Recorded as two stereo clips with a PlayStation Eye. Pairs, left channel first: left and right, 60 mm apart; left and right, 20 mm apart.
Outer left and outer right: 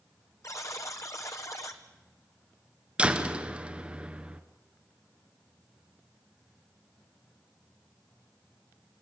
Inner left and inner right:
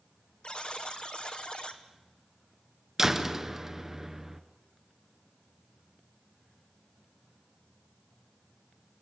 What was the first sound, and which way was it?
A buzzer, 60° left (ahead or behind).